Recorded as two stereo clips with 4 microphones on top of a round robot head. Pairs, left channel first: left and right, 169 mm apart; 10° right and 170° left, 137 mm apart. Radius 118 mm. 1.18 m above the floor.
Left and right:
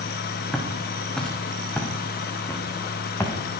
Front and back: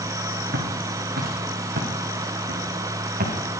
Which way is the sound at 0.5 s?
Straight behind.